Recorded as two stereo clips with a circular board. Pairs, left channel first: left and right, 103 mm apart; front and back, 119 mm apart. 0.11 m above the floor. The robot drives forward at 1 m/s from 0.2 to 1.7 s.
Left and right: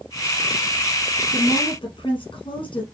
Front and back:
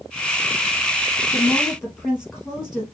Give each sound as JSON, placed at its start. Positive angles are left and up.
{"t": 1.3, "sound": "a woman speaking", "azimuth_deg": 85, "distance_m": 2.5}